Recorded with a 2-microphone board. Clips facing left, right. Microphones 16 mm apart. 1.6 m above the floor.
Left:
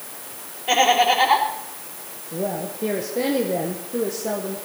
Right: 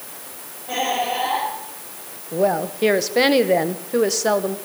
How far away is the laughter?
About 4 m.